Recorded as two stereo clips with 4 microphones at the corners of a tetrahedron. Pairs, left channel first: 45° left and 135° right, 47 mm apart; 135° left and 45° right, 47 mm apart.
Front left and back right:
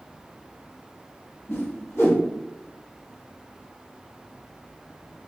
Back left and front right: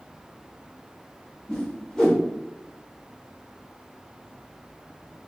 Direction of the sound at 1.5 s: 60° left.